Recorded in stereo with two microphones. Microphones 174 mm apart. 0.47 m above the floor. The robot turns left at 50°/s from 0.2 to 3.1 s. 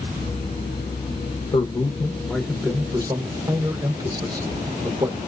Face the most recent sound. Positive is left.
turn(degrees=-35)